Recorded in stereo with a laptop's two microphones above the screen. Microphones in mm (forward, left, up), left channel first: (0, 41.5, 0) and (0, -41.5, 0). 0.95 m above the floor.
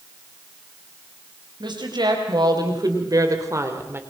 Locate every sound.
1.6 s a woman speaking: 65° right (ahead or behind), 5 m; by 4.0 s 30° right (ahead or behind), 3 m